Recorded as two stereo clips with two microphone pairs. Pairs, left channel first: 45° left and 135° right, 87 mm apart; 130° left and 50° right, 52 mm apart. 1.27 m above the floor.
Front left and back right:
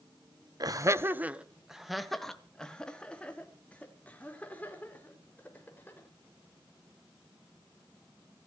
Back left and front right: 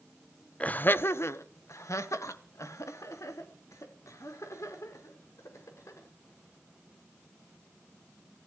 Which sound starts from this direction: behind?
Laughter, at 0.6 s.